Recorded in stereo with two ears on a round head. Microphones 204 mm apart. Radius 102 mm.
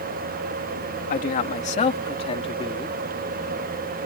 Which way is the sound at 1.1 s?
40° left (ahead or behind).